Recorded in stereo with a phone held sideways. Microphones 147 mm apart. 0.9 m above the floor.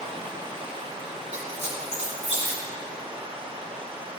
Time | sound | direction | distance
0.0 | running water | 35° right (ahead or behind) | 0.9 m
1.3 | a squeak | 50° right (ahead or behind) | 2 m